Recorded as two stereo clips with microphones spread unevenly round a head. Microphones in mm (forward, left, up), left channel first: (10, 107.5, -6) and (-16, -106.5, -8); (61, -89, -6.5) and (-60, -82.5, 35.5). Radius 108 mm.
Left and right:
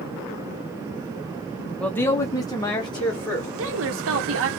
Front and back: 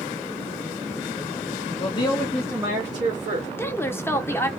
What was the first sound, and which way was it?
A man speaking, 5° left.